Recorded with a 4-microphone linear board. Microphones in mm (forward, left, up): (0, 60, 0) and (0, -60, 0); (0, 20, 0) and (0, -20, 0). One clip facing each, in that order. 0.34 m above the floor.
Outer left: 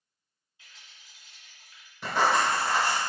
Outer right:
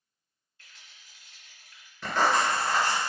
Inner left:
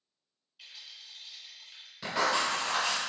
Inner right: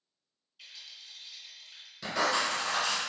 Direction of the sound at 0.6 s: 15° left (ahead or behind).